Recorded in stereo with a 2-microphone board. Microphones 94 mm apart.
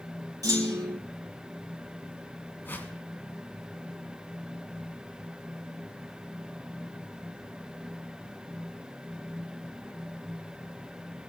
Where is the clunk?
40° right (ahead or behind), 4 m.